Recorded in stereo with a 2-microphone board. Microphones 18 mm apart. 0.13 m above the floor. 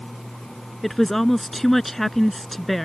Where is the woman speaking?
15° left (ahead or behind).